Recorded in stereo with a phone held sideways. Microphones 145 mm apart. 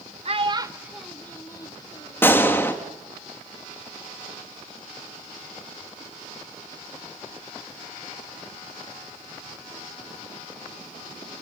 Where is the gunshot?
15° left (ahead or behind), 2.5 m.